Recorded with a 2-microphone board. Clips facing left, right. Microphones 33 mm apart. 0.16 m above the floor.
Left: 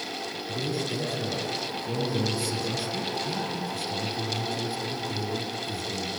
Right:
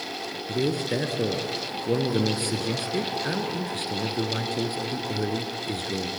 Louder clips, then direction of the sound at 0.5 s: Right 5 dB; 55° right (ahead or behind).